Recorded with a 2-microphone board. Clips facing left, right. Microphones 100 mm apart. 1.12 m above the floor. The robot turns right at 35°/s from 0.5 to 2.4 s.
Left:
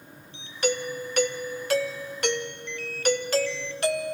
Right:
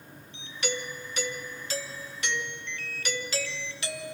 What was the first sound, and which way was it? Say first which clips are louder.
A doorbell: left 7 dB; 55° left.